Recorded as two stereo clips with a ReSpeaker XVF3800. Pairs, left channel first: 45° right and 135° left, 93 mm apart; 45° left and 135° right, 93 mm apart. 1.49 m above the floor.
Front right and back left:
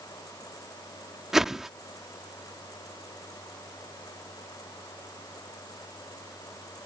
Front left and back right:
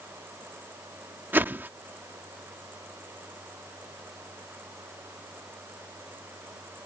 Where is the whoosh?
145° right.